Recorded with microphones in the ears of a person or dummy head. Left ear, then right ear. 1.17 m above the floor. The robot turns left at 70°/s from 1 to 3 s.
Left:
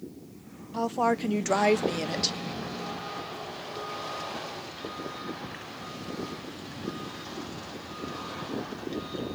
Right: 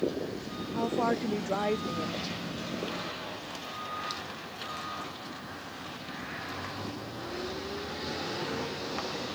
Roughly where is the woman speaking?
Behind.